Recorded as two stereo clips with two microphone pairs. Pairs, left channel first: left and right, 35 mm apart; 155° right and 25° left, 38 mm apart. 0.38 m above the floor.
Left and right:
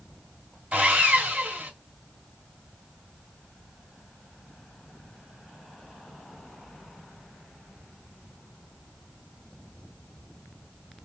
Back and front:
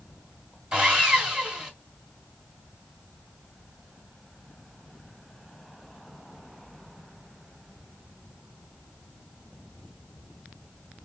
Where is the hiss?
I don't hear a hiss.